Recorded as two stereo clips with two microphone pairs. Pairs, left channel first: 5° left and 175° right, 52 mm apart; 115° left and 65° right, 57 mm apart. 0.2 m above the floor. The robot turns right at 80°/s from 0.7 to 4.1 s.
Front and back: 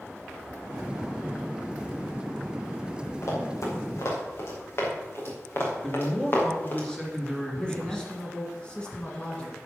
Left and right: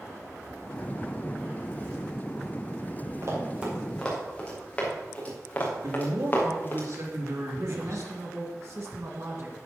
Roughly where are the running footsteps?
Ahead right.